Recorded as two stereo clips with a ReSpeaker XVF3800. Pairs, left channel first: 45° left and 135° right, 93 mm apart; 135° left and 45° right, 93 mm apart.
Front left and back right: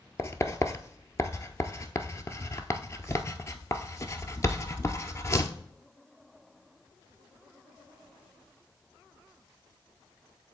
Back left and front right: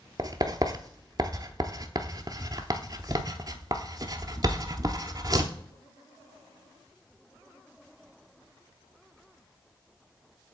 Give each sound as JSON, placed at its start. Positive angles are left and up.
{"t": 0.2, "sound": "writing", "azimuth_deg": -10, "distance_m": 0.8}